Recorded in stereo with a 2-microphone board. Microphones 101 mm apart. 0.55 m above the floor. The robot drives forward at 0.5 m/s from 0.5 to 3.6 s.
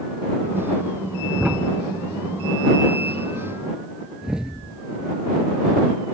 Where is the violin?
I don't hear a violin.